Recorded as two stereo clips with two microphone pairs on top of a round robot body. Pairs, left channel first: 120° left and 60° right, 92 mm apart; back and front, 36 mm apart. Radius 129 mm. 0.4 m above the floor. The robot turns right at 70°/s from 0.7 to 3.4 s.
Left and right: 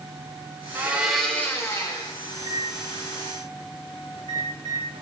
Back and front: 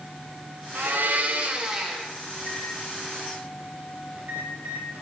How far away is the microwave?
About 2.5 m.